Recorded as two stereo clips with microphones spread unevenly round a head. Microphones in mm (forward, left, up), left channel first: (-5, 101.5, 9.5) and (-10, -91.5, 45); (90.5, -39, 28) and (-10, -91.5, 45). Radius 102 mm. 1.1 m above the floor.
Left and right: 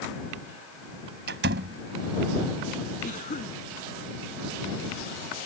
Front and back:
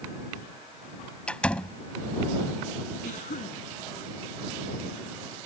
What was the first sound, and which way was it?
A door slam, 55° right.